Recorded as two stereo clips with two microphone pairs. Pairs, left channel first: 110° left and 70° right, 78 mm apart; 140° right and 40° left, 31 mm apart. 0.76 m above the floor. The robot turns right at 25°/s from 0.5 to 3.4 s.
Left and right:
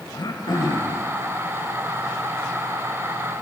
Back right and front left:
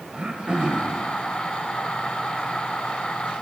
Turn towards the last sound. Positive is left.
turn(degrees=165)